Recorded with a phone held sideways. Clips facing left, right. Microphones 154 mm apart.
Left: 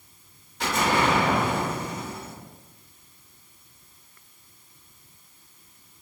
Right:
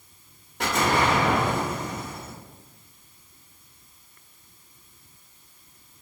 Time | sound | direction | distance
0.6 | an explosion | 60° right (ahead or behind) | 1.3 m